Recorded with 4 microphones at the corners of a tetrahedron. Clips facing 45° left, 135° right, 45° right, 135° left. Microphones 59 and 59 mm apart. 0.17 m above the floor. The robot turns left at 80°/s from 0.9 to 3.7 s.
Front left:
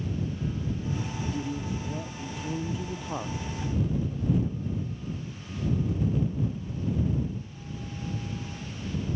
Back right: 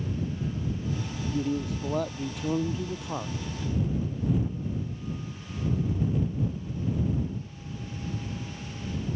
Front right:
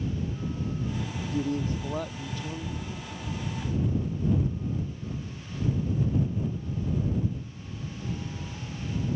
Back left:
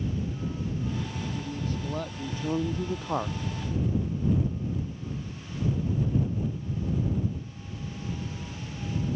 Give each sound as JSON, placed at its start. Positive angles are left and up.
{"t": 1.3, "sound": "a man speaking", "azimuth_deg": -75}